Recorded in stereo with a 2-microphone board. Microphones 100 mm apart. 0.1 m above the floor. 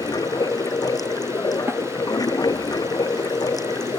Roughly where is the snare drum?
Right.